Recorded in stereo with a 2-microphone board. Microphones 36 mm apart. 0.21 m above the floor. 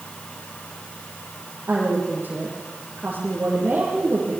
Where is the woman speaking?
50° right (ahead or behind), 8 m.